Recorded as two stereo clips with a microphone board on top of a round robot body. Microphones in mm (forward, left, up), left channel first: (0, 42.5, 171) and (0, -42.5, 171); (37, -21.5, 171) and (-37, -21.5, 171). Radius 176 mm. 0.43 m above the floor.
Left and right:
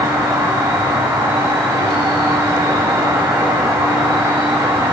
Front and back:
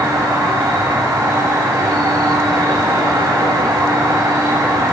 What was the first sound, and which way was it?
An insect, 135° right.